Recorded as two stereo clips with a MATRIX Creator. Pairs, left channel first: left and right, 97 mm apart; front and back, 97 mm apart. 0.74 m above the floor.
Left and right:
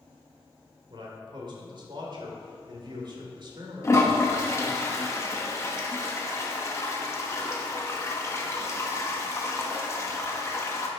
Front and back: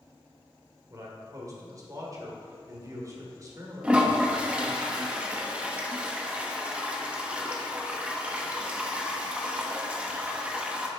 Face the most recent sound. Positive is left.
turn(degrees=115)